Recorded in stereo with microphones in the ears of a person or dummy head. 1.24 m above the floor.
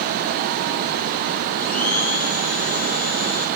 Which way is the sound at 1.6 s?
85° left.